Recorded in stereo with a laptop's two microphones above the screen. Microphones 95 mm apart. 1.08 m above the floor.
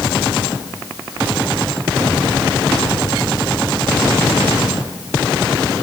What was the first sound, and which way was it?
Only background noise.